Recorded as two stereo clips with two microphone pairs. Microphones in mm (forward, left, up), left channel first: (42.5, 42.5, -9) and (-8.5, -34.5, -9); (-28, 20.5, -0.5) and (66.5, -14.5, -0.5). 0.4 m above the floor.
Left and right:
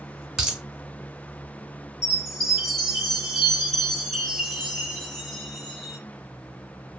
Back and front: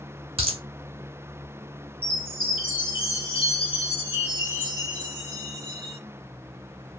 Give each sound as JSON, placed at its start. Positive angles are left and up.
{"t": 0.4, "sound": "a dropped coin", "azimuth_deg": -40, "distance_m": 0.8}
{"t": 2.0, "sound": "a chime", "azimuth_deg": 145, "distance_m": 1.9}